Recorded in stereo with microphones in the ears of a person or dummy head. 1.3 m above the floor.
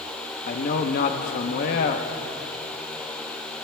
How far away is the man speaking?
About 0.9 m.